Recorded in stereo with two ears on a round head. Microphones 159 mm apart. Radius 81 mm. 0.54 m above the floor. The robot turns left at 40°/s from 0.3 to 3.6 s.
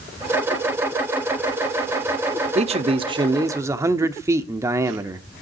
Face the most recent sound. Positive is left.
turn(degrees=-155)